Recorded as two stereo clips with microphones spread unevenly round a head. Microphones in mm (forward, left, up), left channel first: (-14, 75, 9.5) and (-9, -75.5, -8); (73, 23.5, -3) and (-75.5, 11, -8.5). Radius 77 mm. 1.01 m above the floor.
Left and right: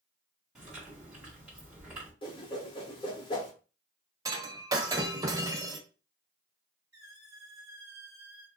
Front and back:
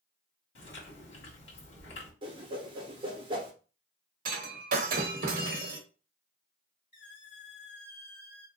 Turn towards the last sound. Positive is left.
turn(degrees=-15)